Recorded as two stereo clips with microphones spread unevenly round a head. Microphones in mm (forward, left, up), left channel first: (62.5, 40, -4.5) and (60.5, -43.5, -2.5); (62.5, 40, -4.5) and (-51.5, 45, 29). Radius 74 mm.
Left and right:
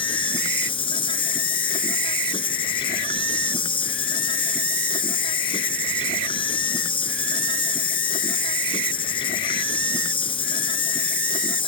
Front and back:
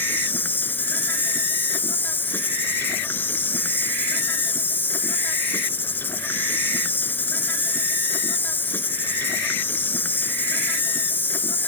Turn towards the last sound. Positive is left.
turn(degrees=75)